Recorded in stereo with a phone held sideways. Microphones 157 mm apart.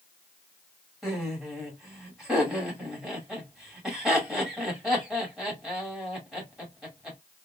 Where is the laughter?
5° right (ahead or behind), 2 m.